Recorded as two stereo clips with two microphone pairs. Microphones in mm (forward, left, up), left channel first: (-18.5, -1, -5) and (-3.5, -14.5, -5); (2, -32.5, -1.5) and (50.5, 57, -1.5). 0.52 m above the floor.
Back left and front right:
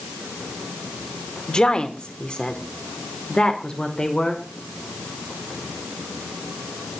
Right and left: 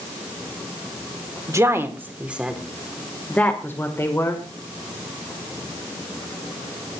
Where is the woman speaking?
110° left, 1.7 m; by 4.5 s 170° right, 2 m.